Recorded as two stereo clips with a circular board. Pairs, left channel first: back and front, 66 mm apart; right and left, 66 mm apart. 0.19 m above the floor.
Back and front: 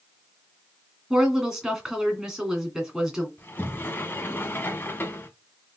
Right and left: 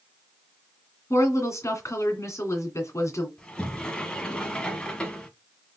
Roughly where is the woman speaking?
Right.